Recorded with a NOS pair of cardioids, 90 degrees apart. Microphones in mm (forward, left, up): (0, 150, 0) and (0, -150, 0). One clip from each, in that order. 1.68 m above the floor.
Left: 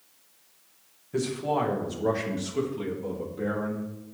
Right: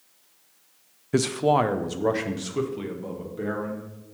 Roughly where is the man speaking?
Ahead right.